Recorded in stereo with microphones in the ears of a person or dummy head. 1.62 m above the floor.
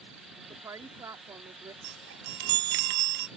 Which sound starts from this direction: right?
A chime, at 1.8 s.